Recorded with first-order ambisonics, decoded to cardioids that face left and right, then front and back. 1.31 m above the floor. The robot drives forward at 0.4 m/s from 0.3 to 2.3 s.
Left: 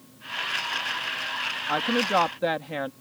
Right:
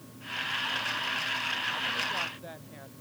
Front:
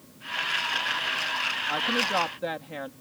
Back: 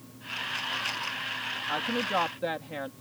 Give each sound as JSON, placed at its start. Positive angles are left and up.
{"t": 1.7, "sound": "a woman speaking", "azimuth_deg": 80}